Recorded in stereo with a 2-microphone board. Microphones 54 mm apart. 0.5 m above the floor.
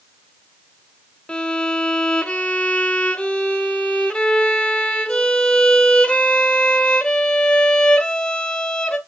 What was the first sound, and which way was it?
A violin, 15° left (ahead or behind).